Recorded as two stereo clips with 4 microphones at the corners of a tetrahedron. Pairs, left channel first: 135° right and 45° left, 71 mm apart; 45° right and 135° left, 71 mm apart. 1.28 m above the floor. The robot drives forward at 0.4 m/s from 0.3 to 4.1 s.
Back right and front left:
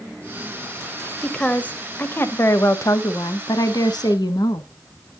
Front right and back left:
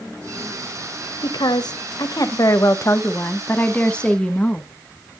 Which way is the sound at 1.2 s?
60° right.